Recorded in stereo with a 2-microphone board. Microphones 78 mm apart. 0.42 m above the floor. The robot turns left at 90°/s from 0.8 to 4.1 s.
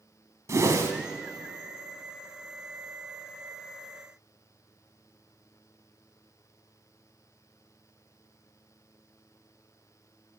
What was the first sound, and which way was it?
A whoosh, 40° right (ahead or behind).